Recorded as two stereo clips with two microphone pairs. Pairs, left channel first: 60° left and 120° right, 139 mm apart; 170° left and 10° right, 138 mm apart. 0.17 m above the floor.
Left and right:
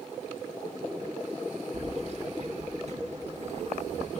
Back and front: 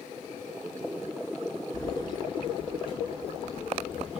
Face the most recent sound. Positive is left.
turn(degrees=-150)